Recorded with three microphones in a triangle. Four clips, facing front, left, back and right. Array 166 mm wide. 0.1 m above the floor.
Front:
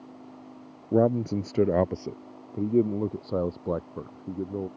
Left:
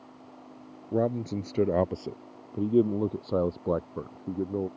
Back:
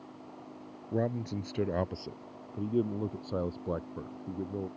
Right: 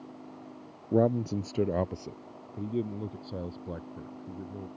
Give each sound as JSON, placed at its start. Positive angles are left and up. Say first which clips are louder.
{"t": 0.9, "sound": "a man speaking", "louder": "right 2 dB, front 10 dB", "azimuth_deg": -5}